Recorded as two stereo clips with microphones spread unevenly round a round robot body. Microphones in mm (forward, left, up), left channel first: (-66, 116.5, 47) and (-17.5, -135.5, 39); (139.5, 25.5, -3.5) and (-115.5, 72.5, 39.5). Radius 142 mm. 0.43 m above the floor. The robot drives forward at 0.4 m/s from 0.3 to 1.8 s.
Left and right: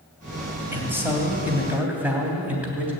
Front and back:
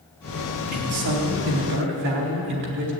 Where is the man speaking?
160° right, 3 m.